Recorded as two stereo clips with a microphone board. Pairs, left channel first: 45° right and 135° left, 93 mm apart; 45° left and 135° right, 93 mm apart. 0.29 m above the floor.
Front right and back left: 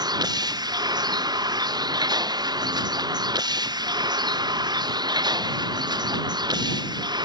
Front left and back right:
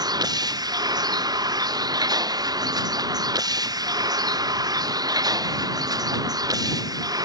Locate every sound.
0.0 s a vehicle: straight behind; by 7.2 s 175° left